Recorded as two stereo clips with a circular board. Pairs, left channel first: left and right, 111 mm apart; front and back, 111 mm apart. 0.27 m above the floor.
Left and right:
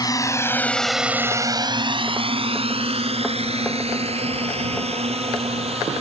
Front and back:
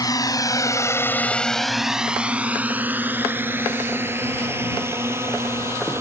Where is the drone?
45° left; by 6.0 s 115° right.